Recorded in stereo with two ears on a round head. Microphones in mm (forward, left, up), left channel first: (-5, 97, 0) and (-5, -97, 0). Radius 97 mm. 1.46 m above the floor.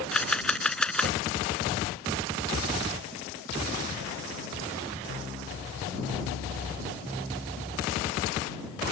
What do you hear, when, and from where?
0.1 s a camera shutter: 5° left (ahead or behind)